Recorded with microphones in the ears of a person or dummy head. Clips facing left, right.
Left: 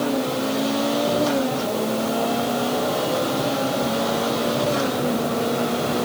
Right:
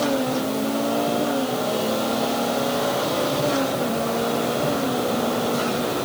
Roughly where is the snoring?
I don't hear snoring.